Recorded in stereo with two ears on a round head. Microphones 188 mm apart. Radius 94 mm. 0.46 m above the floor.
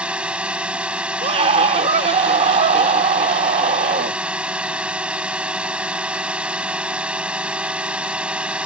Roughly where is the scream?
Right.